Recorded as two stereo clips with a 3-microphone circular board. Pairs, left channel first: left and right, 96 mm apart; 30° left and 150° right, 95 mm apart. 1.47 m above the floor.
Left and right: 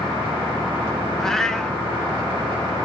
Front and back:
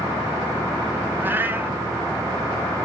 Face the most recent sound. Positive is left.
turn(degrees=170)